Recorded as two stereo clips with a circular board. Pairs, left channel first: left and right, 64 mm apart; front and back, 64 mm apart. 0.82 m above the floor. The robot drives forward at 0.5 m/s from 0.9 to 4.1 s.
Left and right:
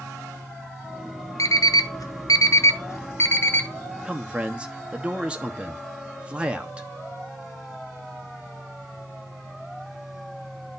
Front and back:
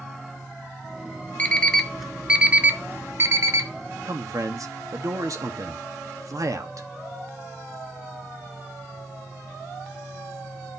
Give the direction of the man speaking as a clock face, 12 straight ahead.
5 o'clock.